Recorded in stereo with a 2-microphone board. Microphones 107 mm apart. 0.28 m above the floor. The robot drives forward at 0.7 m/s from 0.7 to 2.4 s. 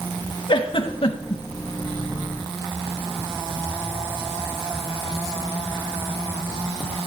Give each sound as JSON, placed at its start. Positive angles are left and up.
{"t": 0.5, "sound": "a giggle", "side_deg": 55, "distance_m": 0.9}